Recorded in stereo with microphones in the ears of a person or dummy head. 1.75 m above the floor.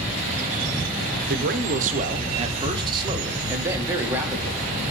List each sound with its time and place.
1.3 s a man speaking: 60° right (ahead or behind), 1.1 m; by 4.6 s 10° right (ahead or behind), 2.5 m